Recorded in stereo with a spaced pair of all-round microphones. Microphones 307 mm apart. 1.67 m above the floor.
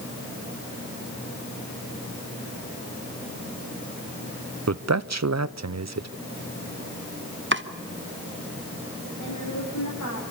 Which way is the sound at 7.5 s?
40° right (ahead or behind).